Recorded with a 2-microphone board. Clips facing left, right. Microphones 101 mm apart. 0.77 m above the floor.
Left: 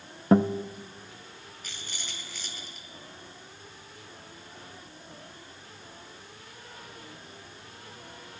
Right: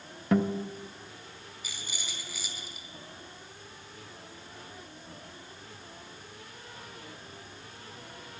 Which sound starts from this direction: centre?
A rattle, at 1.6 s.